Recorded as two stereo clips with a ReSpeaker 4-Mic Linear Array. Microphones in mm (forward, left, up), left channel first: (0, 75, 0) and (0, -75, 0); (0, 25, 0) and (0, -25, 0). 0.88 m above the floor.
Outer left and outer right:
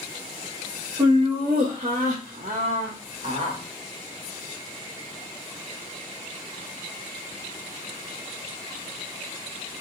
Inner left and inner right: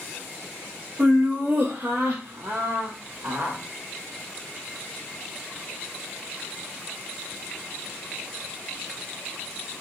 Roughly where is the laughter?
Right.